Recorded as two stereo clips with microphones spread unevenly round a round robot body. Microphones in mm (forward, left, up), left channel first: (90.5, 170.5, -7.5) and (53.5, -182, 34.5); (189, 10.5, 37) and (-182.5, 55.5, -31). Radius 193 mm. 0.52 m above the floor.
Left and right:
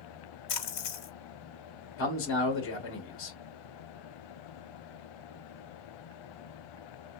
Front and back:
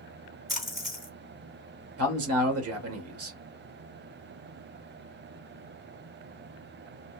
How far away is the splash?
About 1.7 m.